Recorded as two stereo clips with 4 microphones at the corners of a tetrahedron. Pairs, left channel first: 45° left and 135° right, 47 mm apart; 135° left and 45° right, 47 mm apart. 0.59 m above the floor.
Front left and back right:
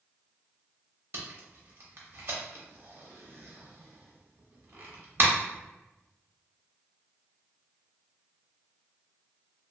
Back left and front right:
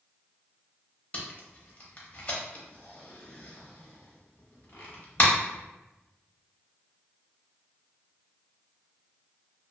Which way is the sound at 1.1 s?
165° right.